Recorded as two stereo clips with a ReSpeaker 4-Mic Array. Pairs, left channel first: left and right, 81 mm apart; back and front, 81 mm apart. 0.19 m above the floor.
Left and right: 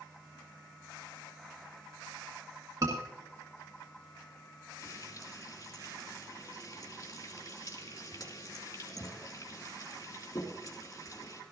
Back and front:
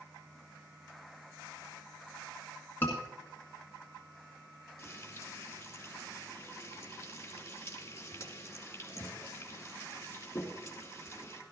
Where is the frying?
135° left, 3.5 m.